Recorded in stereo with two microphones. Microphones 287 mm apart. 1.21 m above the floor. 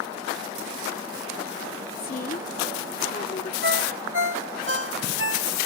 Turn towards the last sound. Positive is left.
turn(degrees=-45)  # may be behind; listen again after turning